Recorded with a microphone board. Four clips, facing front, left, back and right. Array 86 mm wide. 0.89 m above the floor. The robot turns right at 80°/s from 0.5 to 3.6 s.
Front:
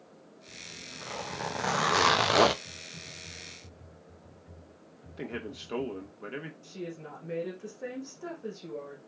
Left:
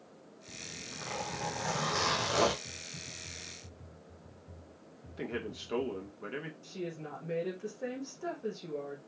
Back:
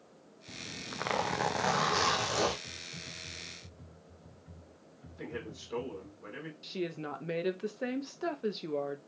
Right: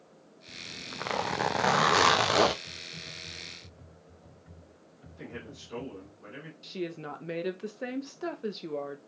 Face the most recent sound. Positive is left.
turn(degrees=-135)